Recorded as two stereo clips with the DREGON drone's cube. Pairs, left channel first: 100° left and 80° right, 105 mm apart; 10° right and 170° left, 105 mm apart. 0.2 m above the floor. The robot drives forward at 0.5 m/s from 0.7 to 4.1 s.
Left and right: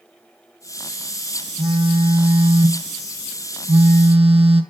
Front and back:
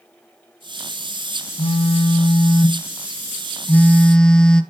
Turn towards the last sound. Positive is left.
turn(degrees=-95)